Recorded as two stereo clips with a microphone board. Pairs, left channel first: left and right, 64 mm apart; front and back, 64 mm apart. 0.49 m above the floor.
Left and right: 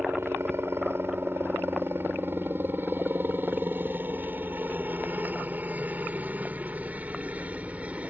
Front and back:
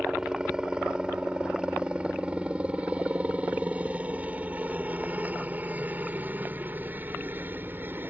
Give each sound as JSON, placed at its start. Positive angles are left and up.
{"t": 0.0, "sound": "a helicopter", "azimuth_deg": -105}